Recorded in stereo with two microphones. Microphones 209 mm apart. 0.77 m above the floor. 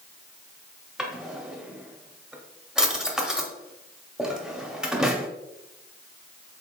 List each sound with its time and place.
1.0 s a drawer: 5° right (ahead or behind), 0.6 m